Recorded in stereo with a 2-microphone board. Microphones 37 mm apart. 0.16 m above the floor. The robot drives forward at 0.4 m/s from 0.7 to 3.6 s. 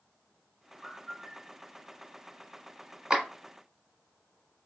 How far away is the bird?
About 0.9 m.